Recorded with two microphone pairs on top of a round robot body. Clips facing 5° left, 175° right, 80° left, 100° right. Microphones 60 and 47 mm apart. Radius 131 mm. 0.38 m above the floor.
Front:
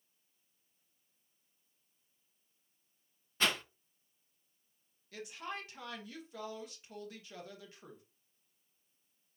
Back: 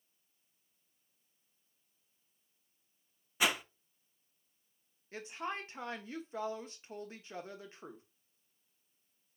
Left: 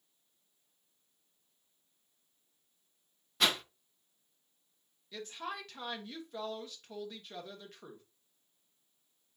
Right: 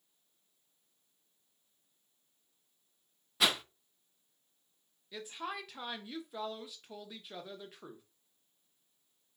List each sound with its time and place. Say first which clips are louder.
3.4 s a whoosh: back 1 dB, even; 170° left, 0.6 m
5.1 s a woman speaking: back 3 dB, even; straight behind, 1.0 m